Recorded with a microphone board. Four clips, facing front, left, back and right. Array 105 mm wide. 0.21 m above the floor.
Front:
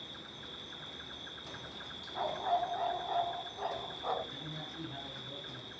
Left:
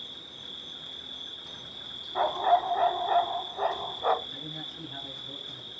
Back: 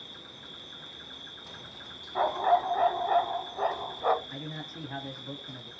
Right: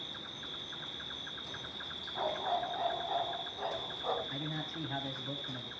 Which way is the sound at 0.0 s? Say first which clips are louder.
Right 2 dB, even; 90° right.